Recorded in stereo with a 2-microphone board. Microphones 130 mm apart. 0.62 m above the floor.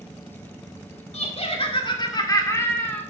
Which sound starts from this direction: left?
Laughter, at 1.1 s.